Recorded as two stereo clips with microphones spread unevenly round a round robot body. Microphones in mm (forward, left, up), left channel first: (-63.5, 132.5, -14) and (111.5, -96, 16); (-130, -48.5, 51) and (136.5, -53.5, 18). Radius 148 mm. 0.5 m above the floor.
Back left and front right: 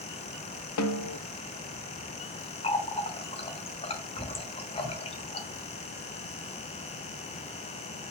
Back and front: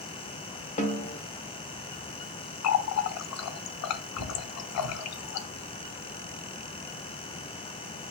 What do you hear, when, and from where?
0.8 s a snare drum: 115° left, 1.2 m
2.6 s a running tap: 165° right, 0.9 m